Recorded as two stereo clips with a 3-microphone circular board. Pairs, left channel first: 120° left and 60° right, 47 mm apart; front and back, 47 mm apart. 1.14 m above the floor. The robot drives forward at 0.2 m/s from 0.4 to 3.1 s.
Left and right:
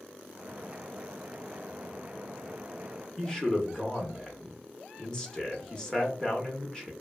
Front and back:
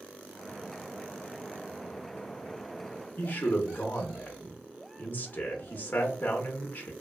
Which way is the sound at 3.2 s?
45° left.